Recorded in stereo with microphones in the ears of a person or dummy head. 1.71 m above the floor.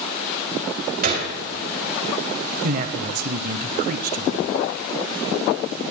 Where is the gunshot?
50° right (ahead or behind), 3 m.